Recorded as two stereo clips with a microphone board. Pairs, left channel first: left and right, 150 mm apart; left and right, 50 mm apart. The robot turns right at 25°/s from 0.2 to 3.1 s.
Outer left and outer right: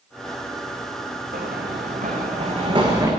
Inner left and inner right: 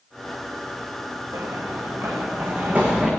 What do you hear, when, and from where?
1.3 s running footsteps: 70° right (ahead or behind), 3.5 m; by 3.1 s 20° right (ahead or behind), 3.5 m